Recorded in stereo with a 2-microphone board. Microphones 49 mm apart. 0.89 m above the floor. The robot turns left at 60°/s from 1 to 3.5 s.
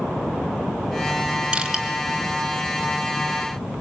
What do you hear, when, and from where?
1.5 s crushing: 20° right (ahead or behind), 4 m; by 1.9 s centre (ahead or behind), 4 m